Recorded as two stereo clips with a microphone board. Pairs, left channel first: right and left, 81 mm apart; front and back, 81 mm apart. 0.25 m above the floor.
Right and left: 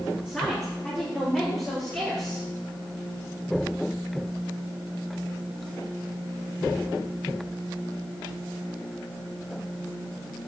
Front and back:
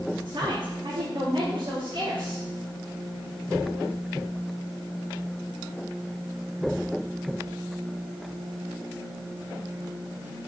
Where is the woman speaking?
165° right, 4.5 m; by 2.5 s 160° right, 5.5 m.